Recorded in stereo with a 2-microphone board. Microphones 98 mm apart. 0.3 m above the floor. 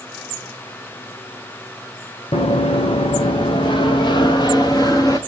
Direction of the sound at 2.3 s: 80° left.